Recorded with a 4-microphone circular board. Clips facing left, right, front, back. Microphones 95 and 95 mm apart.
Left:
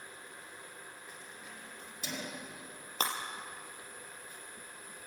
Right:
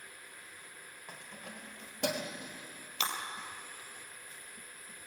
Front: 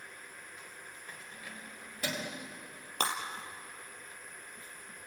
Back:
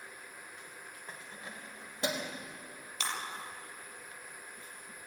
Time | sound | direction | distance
1.1 | keys jangling | 120° right | 3 m
3.0 | breaking glass | 40° left | 4 m